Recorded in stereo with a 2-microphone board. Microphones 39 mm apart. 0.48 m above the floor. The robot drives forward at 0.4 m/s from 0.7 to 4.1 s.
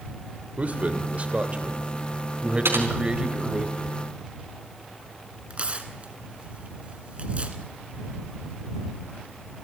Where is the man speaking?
40° right (ahead or behind), 1.4 m; by 3.6 s 20° right (ahead or behind), 2.5 m.